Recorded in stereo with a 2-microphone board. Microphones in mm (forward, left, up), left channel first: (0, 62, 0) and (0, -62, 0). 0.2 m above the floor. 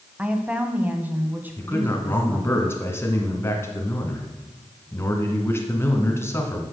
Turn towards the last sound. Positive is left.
turn(degrees=20)  # may be behind; listen again after turning